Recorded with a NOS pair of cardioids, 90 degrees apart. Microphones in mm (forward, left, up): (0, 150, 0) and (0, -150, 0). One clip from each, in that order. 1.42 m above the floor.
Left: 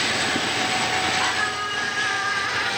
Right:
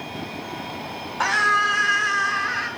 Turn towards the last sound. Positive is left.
turn(degrees=-10)